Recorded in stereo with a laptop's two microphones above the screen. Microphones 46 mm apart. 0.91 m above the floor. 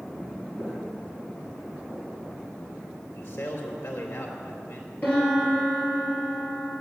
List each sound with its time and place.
0.6 s footsteps: 40° left (ahead or behind), 4 m; by 2.2 s 20° left (ahead or behind), 4 m
3.1 s a man speaking: 75° left (ahead or behind), 3 m
5.0 s a piano: 40° left (ahead or behind), 3.5 m